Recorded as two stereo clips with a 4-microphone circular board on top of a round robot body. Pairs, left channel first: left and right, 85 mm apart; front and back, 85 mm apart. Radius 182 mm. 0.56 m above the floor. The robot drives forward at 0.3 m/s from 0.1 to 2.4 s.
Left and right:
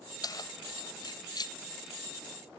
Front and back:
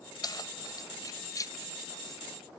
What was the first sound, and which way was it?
Keys jangling, 45° left.